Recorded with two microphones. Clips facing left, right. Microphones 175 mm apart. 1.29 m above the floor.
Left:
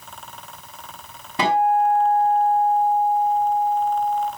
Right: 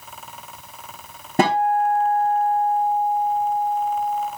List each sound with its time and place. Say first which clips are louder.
1.4 s a guitar: even; 45° right (ahead or behind), 4 m